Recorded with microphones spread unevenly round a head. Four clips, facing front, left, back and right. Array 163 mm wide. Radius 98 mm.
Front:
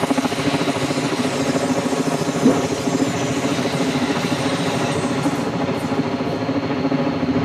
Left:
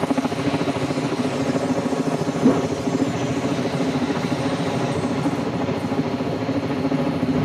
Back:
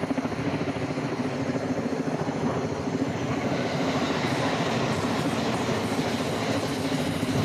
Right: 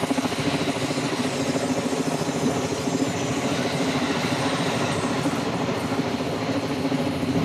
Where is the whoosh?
30° left.